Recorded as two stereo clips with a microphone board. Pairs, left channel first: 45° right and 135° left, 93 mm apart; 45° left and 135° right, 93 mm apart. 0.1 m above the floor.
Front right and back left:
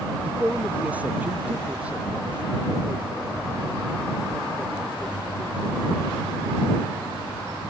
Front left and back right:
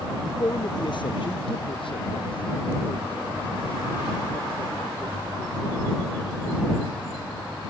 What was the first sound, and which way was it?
A man speaking, 70° left.